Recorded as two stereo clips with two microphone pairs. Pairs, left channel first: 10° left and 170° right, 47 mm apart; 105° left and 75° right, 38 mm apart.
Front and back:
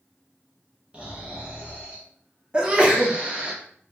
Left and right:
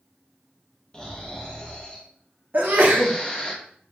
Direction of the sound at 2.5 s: 105° right.